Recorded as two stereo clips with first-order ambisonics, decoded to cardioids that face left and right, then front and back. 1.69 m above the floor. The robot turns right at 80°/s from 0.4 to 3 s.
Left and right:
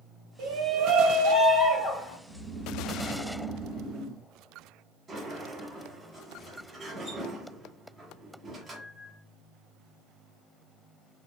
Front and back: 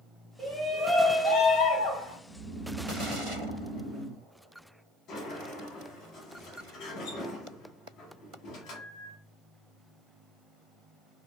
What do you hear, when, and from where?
0.4 s a shout: 100° right, 1.2 m; by 2.2 s 45° left, 1.2 m
2.3 s snoring: 155° right, 1.2 m; by 4.2 s 95° right, 1.2 m
5.1 s a sliding door: 20° right, 0.9 m